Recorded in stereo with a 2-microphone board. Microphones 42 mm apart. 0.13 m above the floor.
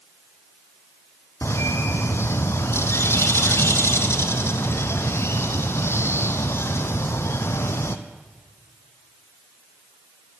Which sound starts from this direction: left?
A bird, at 1.4 s.